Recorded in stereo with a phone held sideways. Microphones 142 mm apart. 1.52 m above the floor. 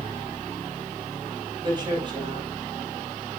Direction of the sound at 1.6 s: 30° right (ahead or behind).